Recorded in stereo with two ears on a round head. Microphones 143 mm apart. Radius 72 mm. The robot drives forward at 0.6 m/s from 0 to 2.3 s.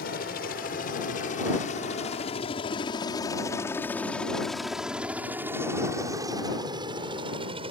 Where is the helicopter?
65° left (ahead or behind); by 7.7 s 35° right (ahead or behind).